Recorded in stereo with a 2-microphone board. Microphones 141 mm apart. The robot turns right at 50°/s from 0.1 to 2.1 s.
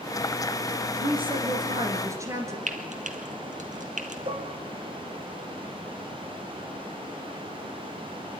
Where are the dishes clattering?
40° right (ahead or behind), 1.7 m.